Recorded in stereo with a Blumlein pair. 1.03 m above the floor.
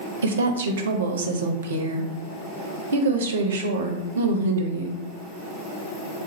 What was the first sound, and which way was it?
A woman speaking, 65° right.